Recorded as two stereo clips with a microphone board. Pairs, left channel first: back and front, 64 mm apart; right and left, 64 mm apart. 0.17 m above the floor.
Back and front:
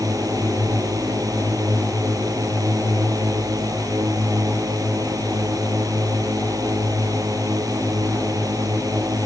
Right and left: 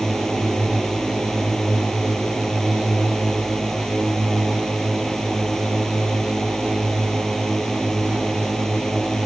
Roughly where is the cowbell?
I don't hear a cowbell.